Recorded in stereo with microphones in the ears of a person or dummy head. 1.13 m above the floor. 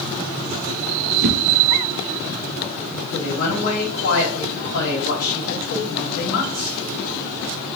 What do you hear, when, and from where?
1.2 s a whoosh: 65° right (ahead or behind), 0.6 m
3.1 s a woman speaking: 75° left (ahead or behind), 2.5 m